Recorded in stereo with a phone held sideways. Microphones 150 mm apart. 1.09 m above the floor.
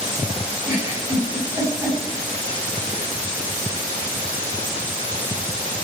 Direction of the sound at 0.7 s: 15° right (ahead or behind).